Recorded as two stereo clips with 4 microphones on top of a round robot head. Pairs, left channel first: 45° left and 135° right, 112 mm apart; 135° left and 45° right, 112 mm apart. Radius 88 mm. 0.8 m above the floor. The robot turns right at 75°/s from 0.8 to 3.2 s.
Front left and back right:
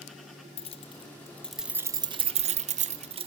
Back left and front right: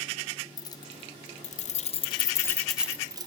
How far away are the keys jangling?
About 1.4 m.